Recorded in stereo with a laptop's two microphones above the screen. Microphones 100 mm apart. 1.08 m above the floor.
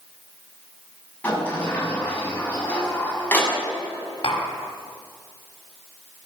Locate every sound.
1.2 s a sliding door: 20° left (ahead or behind), 7.5 m
4.2 s tapping: 60° left (ahead or behind), 4.5 m